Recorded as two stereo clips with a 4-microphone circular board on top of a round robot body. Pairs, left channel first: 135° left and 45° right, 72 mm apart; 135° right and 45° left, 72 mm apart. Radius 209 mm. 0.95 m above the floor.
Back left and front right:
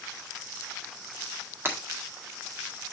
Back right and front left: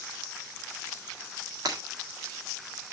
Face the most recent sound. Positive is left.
turn(degrees=15)